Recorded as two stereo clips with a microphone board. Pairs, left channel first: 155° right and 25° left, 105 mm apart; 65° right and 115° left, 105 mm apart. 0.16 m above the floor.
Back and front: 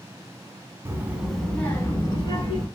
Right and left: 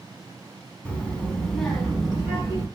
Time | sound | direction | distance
0.8 | a child speaking | straight ahead | 0.8 m